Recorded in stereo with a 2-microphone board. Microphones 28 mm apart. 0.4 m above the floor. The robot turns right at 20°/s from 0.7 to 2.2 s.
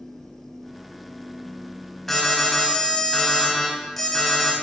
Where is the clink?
I don't hear a clink.